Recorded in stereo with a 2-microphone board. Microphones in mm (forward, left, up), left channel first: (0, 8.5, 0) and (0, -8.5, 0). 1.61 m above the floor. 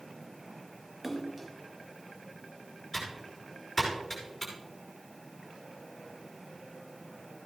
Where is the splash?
15° right (ahead or behind), 2 m.